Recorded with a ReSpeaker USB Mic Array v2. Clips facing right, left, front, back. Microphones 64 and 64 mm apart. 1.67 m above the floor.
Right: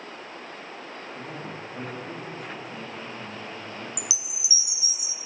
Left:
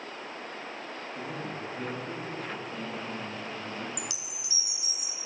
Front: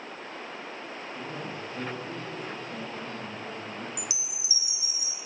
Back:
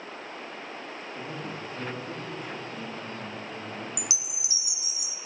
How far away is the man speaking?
About 4 m.